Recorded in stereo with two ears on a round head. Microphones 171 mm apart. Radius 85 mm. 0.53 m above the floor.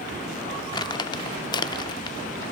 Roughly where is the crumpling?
Left.